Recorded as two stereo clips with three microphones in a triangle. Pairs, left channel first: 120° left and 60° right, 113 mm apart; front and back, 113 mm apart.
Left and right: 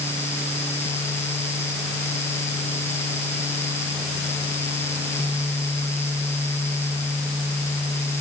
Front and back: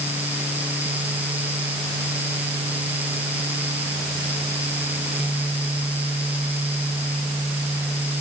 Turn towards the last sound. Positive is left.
No sound to turn to.